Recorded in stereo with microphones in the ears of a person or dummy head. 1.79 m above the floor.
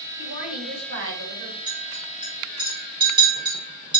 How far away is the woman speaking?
About 3.5 m.